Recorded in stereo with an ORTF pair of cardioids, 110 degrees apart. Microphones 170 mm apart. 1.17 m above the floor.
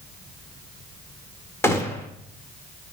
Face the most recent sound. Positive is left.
turn(degrees=15)